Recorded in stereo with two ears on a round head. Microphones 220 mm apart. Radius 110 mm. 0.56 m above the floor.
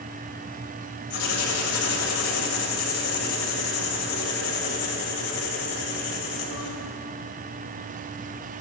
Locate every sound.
1.1 s writing: 75° left (ahead or behind), 2 m